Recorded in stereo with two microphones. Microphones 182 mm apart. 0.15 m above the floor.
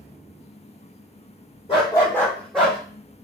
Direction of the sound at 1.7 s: 25° left (ahead or behind).